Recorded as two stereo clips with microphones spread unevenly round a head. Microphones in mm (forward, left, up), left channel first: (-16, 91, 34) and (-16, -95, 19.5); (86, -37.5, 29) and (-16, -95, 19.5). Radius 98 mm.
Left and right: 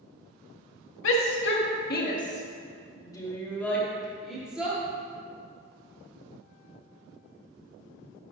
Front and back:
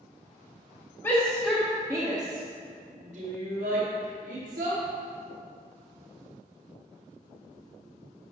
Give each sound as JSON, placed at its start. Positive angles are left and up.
{"t": 1.0, "sound": "a shout", "azimuth_deg": 110, "distance_m": 2.0}